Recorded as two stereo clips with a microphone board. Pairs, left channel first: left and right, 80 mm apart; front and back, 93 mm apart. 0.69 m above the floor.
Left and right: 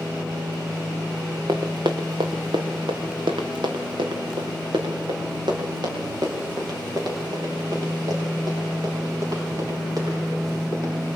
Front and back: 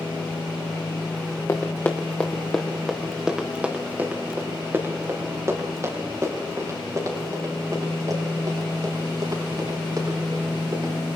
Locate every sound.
1.5 s running footsteps: 55° right, 2.5 m; by 10.9 s 130° right, 13.5 m